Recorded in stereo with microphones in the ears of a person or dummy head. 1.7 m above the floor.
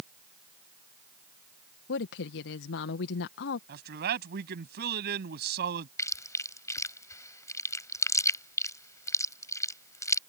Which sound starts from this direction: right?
A man speaking, at 3.7 s.